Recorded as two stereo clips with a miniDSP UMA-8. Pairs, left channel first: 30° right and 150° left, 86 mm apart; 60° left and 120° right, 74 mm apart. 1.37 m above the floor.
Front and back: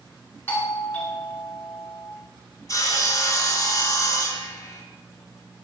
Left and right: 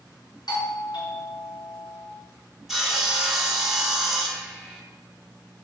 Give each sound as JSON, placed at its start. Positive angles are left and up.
{"t": 0.5, "sound": "a doorbell", "azimuth_deg": 40, "distance_m": 1.9}
{"t": 2.7, "sound": "sawing", "azimuth_deg": -35, "distance_m": 1.2}